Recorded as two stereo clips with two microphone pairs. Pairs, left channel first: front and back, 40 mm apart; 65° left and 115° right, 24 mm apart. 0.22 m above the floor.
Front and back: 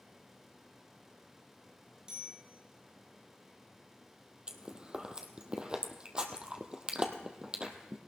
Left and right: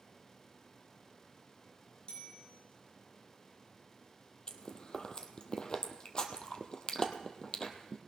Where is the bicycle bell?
110° left, 8 m.